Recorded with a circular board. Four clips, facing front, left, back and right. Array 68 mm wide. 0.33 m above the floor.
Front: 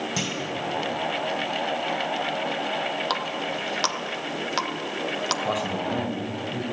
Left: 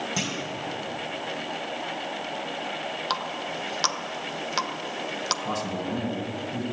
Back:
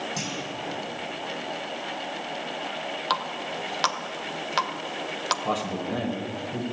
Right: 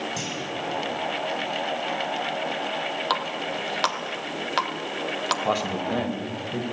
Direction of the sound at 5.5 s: 90° right.